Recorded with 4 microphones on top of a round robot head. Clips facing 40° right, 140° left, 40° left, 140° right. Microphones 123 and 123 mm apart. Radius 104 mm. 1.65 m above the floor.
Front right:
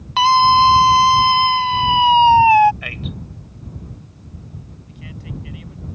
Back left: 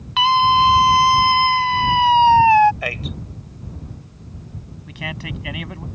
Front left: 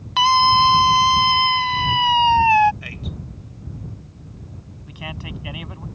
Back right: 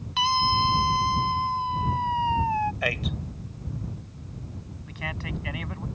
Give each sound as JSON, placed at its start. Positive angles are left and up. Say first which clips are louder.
{"t": 0.2, "sound": "a scream", "louder": "front right 3 dB, front left 9 dB", "azimuth_deg": 10}
{"t": 2.8, "sound": "a man speaking", "louder": "back left 3 dB, back right 5 dB", "azimuth_deg": -170}
{"t": 4.9, "sound": "a man speaking", "louder": "back left 5 dB, front left 1 dB", "azimuth_deg": 120}